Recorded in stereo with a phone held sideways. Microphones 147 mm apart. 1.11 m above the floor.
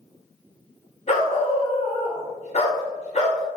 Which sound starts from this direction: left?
A dog barking, at 1.1 s.